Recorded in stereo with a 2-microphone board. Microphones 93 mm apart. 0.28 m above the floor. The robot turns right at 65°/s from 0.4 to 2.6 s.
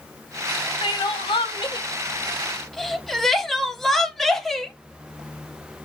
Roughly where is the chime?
I don't hear a chime.